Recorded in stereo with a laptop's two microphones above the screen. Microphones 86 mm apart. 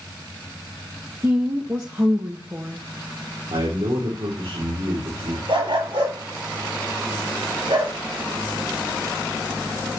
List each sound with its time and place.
1.2 s a woman speaking: 30° right (ahead or behind), 1.0 m
3.5 s a man speaking: 80° right, 3 m
5.5 s a dog barking: 80° right, 7 m